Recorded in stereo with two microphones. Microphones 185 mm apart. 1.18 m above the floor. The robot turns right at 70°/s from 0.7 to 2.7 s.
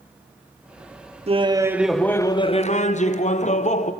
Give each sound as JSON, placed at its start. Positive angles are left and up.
{"t": 1.3, "sound": "laughter", "azimuth_deg": -45, "distance_m": 0.8}